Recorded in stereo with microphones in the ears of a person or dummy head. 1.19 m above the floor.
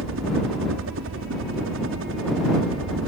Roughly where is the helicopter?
Right.